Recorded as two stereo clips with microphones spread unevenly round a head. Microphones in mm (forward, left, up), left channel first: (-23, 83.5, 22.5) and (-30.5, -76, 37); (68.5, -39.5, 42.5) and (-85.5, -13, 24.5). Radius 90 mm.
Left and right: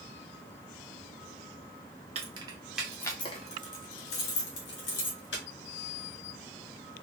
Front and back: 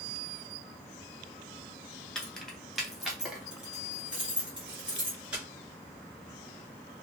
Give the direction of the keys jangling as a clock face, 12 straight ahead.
3 o'clock.